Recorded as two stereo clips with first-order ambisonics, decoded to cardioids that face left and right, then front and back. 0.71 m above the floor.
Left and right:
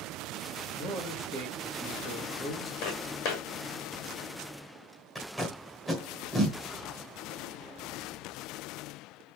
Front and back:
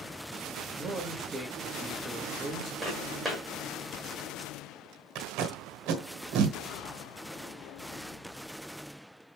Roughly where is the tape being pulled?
Behind.